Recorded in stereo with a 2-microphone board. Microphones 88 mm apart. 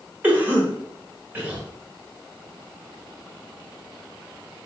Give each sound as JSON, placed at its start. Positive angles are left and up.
{"t": 0.2, "sound": "a cough", "side_deg": -20, "distance_m": 1.4}